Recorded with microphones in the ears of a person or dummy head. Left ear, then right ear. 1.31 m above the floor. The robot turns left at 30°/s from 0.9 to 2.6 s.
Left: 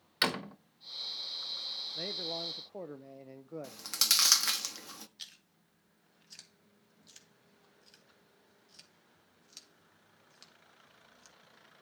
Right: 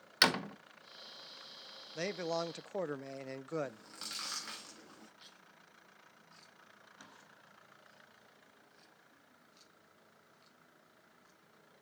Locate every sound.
0.2 s a door slam: 15° right (ahead or behind), 0.7 m
1.9 s a man speaking: 40° right (ahead or behind), 0.5 m; by 3.8 s 55° right (ahead or behind), 0.5 m
3.6 s chewing: 65° left (ahead or behind), 1.1 m
5.2 s chewing: 65° left (ahead or behind), 3 m